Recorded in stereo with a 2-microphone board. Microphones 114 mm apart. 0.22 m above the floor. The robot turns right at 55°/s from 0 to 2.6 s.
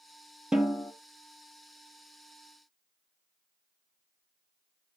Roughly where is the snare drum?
Centre.